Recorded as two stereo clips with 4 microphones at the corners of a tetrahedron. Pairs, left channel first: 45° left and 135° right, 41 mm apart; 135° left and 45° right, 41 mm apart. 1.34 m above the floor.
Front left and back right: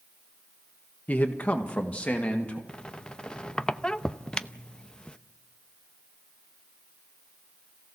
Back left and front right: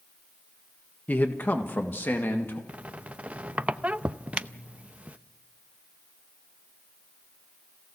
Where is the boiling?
I don't hear boiling.